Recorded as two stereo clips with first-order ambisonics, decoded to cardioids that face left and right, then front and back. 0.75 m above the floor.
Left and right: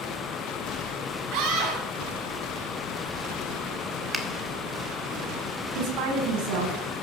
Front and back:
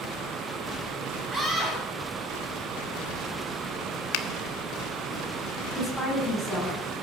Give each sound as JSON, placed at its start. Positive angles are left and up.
{"t": 1.3, "sound": "a scream", "azimuth_deg": -105, "distance_m": 5.5}
{"t": 4.1, "sound": "a finger snap", "azimuth_deg": -5, "distance_m": 1.6}
{"t": 5.8, "sound": "a woman speaking", "azimuth_deg": -85, "distance_m": 6.5}